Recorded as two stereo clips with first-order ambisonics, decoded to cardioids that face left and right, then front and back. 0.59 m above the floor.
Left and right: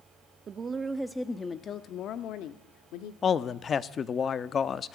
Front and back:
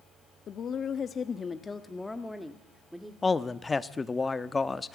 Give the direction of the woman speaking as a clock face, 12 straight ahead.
1 o'clock.